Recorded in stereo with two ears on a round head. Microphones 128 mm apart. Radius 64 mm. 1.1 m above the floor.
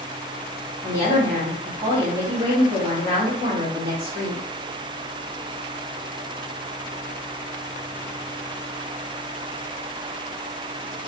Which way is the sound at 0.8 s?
25° right (ahead or behind).